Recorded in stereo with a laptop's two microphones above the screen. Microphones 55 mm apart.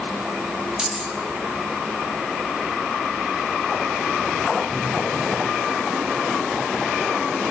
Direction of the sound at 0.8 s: 15° right (ahead or behind).